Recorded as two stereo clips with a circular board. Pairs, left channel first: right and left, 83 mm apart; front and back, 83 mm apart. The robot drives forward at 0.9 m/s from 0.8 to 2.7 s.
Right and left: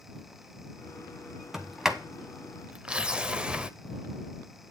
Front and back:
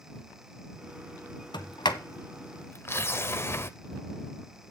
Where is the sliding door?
5° left, 1.3 m; by 3.7 s 20° left, 0.5 m.